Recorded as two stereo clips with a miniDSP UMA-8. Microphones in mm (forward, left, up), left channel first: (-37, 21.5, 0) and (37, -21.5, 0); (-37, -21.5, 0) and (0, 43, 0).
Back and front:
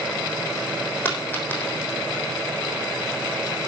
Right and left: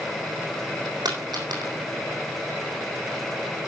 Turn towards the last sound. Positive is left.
turn(degrees=85)